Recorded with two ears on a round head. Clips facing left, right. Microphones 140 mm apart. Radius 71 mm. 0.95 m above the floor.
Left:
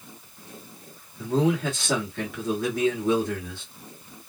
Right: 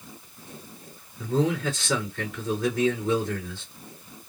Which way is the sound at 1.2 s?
55° left (ahead or behind).